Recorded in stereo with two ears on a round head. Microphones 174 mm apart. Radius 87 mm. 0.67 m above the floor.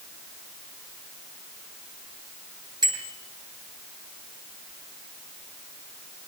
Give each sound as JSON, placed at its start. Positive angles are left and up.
{"t": 2.8, "sound": "a bicycle bell", "side_deg": -25, "distance_m": 8.0}